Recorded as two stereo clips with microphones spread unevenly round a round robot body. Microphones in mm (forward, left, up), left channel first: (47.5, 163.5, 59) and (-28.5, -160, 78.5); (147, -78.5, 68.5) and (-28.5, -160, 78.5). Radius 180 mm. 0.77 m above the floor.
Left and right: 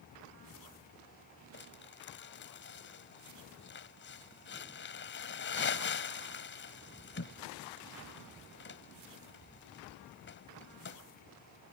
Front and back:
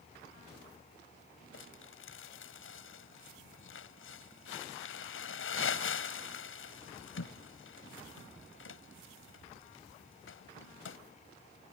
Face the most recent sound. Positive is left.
turn(degrees=20)